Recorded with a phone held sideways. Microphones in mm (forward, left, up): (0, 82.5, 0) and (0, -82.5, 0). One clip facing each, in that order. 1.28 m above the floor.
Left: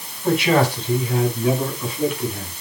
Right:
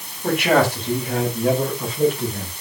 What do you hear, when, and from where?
0.2 s a man speaking: 50° right (ahead or behind), 6 m; by 2.5 s 35° right (ahead or behind), 6.5 m